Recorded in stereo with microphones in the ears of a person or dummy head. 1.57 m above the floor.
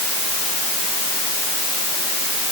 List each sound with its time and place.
Only background noise.